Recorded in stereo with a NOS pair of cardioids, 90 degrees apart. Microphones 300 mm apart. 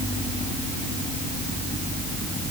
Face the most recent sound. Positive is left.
No sound to turn to.